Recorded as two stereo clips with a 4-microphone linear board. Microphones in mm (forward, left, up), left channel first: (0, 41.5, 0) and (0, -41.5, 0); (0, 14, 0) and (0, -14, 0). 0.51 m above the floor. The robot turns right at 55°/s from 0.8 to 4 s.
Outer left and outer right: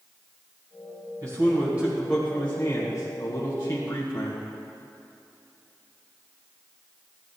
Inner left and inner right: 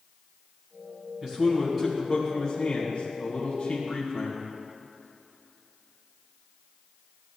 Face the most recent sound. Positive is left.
turn(degrees=105)